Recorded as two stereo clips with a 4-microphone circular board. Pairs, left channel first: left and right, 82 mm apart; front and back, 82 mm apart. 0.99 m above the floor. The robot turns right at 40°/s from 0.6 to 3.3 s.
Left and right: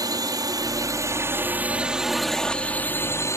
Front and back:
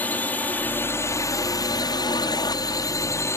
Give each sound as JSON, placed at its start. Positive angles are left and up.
{"t": 0.0, "sound": "a drone", "azimuth_deg": -65}